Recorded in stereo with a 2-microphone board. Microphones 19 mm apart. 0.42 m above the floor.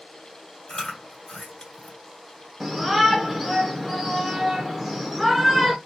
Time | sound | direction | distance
0.7 | chewing | 30° left (ahead or behind) | 2 m
2.6 | a shout | 10° right (ahead or behind) | 0.8 m